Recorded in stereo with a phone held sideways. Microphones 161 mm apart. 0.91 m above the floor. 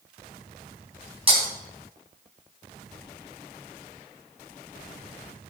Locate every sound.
1.3 s breaking glass: 35° right (ahead or behind), 2.5 m